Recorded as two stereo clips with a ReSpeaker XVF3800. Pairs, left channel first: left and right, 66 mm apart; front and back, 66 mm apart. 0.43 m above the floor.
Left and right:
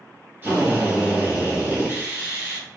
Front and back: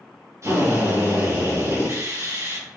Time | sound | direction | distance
0.4 | a drill | 150° right | 2.5 m